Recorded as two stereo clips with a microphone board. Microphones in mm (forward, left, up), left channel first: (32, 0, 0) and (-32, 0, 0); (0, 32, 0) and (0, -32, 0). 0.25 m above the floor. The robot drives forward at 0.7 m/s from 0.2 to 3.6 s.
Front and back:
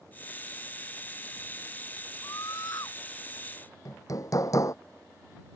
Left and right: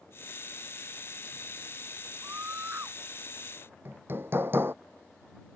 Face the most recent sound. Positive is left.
turn(degrees=-35)